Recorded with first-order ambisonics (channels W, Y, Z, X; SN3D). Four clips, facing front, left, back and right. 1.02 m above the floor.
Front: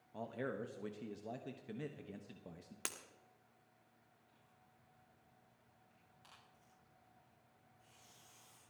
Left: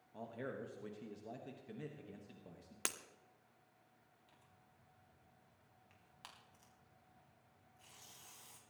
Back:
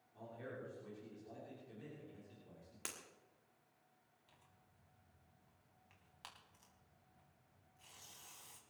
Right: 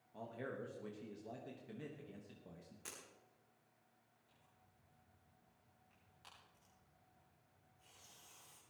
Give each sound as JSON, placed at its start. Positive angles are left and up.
{"t": 0.1, "sound": "a man speaking", "azimuth_deg": 5, "distance_m": 1.3}
{"t": 2.9, "sound": "breaking glass", "azimuth_deg": 75, "distance_m": 1.2}
{"t": 4.3, "sound": "tearing paper", "azimuth_deg": 140, "distance_m": 3.5}